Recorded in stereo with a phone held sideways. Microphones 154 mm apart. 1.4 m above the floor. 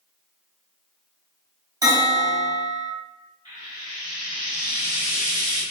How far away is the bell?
About 1.4 m.